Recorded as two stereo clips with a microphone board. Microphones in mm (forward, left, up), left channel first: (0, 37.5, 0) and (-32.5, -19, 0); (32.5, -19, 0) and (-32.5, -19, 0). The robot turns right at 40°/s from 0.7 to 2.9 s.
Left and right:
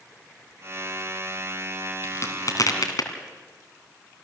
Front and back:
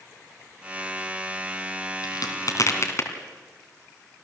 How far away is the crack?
About 2.5 m.